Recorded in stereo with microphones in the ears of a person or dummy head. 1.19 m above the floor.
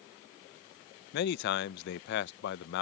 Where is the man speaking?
70° left (ahead or behind).